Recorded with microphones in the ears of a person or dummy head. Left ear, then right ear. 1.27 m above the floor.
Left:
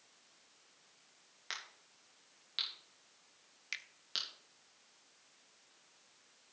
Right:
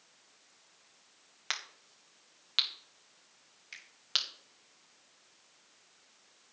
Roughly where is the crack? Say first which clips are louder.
Right 7 dB; right.